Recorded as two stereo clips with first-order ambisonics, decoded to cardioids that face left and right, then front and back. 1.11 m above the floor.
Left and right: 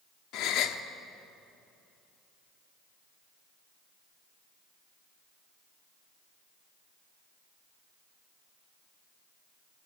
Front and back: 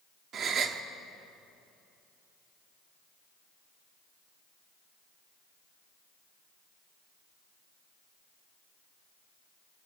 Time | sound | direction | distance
0.3 | a gasp | 120° left | 1.1 m